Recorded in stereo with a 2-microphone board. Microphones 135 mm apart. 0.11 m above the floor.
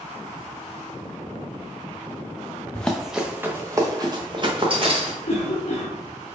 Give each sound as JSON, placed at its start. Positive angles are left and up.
{"t": 2.7, "sound": "running footsteps", "side_deg": 10, "distance_m": 0.8}
{"t": 5.2, "sound": "a cough", "side_deg": 50, "distance_m": 1.6}